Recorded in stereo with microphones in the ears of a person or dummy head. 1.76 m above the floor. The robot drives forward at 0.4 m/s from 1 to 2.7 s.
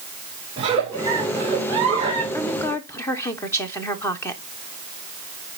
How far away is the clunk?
No clunk in this recording.